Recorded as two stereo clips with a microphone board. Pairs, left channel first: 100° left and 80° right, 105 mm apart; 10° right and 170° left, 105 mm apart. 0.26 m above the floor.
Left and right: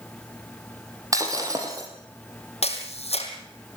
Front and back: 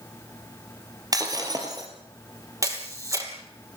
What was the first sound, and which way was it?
Breaking glass, 135° right.